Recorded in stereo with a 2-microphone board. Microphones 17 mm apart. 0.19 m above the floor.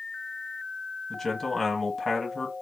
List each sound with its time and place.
1.1 s a man speaking: 25° left (ahead or behind), 1.0 m